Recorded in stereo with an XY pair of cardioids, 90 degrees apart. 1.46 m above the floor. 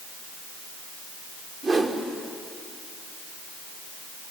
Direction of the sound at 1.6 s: 35° right.